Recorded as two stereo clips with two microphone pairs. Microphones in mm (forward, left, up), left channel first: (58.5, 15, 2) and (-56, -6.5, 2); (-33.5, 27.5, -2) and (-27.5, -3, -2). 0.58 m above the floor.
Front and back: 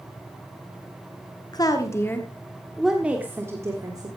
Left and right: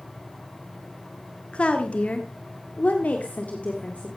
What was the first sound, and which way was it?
A woman speaking, 55° left.